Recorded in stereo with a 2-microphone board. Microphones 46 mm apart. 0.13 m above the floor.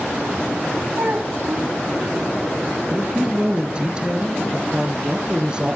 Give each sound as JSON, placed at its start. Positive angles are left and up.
{"t": 0.9, "sound": "a child speaking", "side_deg": -65, "distance_m": 5.0}
{"t": 2.9, "sound": "a man speaking", "side_deg": -20, "distance_m": 2.5}